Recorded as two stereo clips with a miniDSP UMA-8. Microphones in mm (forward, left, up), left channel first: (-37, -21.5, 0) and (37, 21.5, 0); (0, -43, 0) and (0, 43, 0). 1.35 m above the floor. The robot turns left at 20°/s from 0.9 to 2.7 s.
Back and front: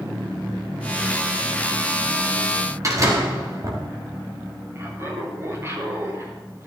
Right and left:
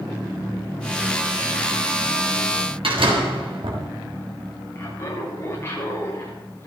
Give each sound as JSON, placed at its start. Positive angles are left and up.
{"t": 2.8, "sound": "a door slam", "azimuth_deg": 80, "distance_m": 3.0}
{"t": 4.8, "sound": "laughter", "azimuth_deg": -30, "distance_m": 4.5}